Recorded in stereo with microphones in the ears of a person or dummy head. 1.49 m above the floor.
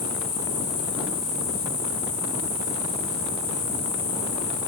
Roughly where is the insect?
Left.